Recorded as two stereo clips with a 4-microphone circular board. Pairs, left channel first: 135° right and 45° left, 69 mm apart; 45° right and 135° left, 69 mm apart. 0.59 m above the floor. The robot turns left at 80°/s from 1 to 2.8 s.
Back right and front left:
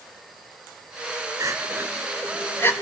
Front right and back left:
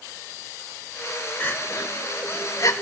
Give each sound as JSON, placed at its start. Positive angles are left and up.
{"t": 1.4, "sound": "crying", "azimuth_deg": 15, "distance_m": 1.3}